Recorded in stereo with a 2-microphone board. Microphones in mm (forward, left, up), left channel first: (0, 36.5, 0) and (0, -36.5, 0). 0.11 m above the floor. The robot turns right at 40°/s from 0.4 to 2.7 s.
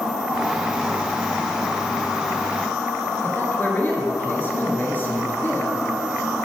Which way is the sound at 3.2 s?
30° left (ahead or behind).